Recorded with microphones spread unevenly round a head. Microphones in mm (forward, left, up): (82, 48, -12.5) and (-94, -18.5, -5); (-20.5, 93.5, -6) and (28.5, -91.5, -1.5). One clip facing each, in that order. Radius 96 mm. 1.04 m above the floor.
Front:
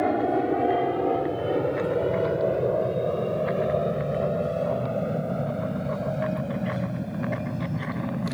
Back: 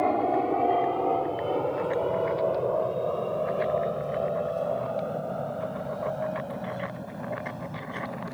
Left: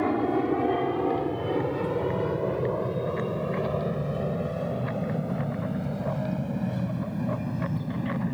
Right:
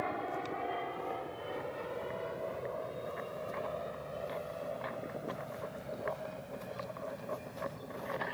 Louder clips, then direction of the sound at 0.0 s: Front 2 dB, left 14 dB; 95° left.